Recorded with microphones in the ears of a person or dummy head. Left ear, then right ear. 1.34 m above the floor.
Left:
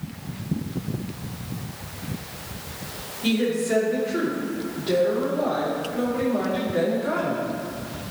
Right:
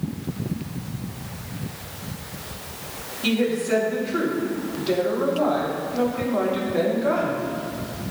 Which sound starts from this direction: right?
A woman speaking, at 3.2 s.